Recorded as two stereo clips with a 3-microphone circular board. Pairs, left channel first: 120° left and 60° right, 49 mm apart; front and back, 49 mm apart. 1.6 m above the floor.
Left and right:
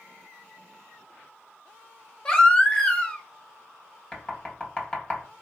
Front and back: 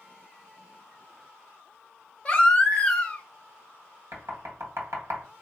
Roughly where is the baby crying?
Ahead left.